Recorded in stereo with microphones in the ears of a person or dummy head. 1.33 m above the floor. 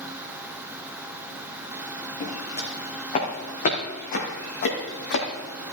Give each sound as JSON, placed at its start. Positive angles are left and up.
{"t": 2.2, "sound": "footsteps", "side_deg": 30, "distance_m": 4.5}